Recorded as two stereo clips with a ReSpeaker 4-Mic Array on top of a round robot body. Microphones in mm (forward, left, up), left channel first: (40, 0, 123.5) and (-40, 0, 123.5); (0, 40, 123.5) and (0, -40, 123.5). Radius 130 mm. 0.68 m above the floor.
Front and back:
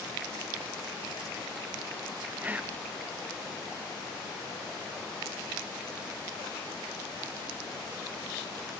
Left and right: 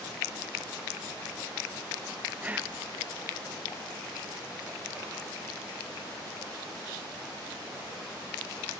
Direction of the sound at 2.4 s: 135° right.